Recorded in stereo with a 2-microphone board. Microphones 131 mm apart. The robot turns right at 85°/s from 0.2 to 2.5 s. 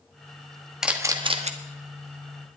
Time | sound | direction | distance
0.8 | a camera shutter | 5° right (ahead or behind) | 1.2 m